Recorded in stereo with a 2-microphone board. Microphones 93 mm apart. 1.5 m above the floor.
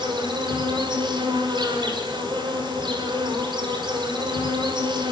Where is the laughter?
No laughter in this recording.